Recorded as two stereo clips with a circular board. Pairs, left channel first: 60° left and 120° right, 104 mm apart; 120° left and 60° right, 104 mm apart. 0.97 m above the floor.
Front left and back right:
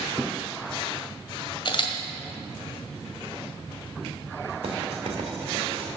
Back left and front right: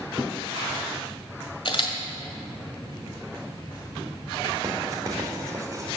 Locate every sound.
1.6 s a camera shutter: 90° left, 1.6 m
4.6 s writing: 115° right, 2.0 m